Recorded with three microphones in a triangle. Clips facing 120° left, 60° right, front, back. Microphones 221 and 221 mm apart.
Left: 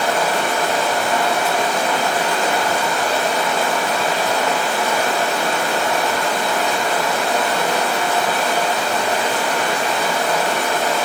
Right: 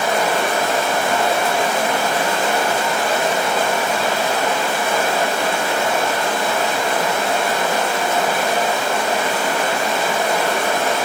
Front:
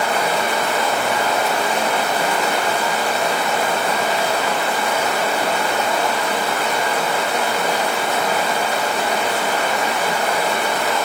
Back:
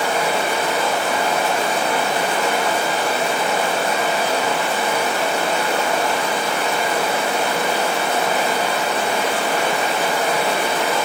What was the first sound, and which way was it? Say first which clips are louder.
Running water: right 1 dB, even; 125° right.